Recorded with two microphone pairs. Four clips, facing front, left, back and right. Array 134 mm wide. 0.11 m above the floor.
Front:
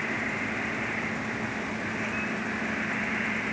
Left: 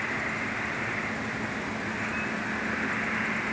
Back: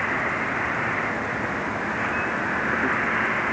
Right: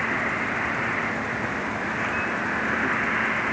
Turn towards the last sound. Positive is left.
turn(degrees=-155)